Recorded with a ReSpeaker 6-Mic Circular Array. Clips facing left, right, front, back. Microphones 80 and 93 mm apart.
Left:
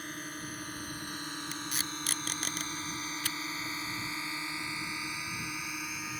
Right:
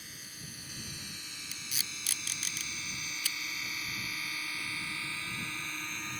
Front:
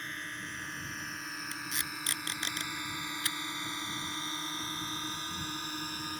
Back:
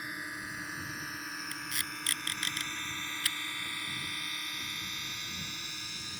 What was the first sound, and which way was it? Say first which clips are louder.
A drone: left 10 dB, back 1 dB; 105° left.